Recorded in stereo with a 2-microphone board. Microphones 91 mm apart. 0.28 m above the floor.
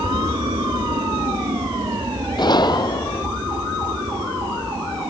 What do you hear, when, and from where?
0.0 s an aircraft: 65° right (ahead or behind)
2.4 s a gunshot: 50° left (ahead or behind)